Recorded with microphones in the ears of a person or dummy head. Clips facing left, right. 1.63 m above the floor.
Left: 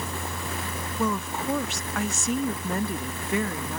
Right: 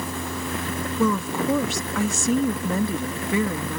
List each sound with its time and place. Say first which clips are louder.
1.0 s a woman speaking: right 5 dB; 90° right